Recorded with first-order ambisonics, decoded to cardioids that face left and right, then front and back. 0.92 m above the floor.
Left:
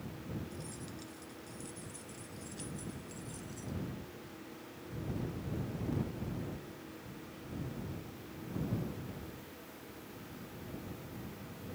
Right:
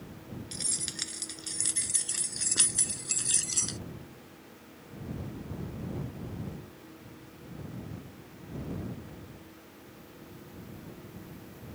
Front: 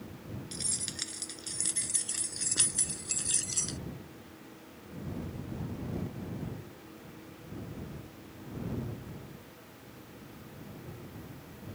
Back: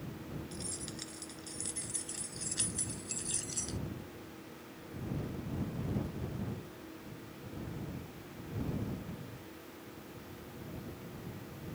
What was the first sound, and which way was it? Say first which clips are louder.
Keys jangling: right 11 dB, front 11 dB; 60° right.